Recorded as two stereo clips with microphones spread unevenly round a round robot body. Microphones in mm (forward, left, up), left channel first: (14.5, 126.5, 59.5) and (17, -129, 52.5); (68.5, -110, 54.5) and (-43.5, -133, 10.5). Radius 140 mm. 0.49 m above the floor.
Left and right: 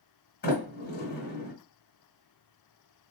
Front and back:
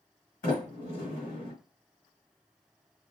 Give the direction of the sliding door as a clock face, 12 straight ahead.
11 o'clock.